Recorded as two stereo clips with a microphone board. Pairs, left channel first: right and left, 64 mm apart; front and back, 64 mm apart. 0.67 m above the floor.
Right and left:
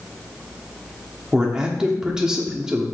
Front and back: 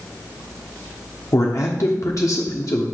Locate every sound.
1.3 s a man speaking: 15° left, 1.2 m